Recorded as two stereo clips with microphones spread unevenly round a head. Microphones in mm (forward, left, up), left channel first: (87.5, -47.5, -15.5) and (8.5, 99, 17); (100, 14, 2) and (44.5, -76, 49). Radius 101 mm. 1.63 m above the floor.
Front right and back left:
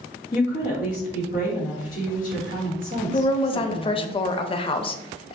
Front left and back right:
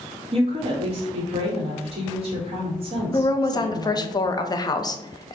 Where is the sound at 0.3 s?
115° right, 1.0 m.